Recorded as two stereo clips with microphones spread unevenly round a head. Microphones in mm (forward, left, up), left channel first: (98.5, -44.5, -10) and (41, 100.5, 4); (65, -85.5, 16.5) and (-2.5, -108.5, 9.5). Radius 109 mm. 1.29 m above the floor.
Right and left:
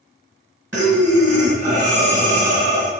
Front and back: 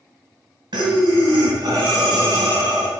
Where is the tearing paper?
No tearing paper in this recording.